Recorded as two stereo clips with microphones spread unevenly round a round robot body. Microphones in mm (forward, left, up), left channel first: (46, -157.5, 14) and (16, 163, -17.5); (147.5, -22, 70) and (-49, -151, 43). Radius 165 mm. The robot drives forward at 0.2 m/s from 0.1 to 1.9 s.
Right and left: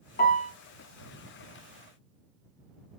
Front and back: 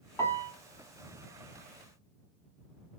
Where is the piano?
35° right, 0.7 m; by 0.5 s 40° right, 0.6 m.